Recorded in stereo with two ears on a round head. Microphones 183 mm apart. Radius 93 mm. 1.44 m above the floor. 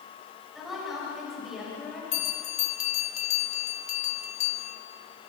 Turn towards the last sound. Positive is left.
turn(degrees=35)  # may be behind; listen again after turning